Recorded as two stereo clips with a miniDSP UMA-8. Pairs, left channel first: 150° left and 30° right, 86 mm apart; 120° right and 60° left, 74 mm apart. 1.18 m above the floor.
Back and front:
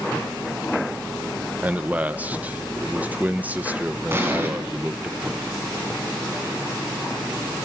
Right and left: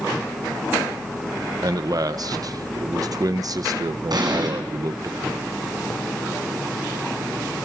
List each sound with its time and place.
1.6 s a man speaking: 40° left, 1.2 m
4.1 s an explosion: 30° left, 7 m